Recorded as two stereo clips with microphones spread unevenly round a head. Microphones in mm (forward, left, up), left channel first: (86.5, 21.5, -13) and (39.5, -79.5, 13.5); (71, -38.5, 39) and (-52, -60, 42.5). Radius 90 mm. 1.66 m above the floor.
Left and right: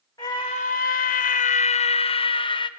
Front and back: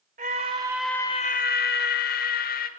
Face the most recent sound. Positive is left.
turn(degrees=15)